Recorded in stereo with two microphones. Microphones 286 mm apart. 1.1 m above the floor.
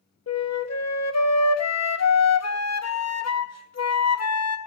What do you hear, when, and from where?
0.3 s a flute: 60° left (ahead or behind), 0.8 m